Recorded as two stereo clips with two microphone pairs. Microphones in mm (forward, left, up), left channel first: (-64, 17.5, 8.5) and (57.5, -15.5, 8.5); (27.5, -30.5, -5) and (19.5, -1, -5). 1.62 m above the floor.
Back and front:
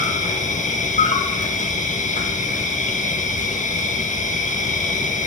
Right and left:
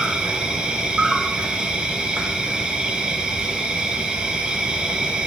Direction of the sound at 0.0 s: 165° left.